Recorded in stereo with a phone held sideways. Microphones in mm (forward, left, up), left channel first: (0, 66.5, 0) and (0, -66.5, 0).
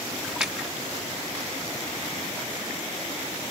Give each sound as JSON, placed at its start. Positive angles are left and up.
{"t": 0.2, "sound": "a splash", "side_deg": -5, "distance_m": 1.6}